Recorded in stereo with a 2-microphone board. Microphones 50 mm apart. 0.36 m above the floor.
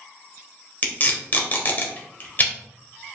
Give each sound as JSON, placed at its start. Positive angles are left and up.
{"t": 0.8, "sound": "tape being pulled", "side_deg": 40, "distance_m": 0.9}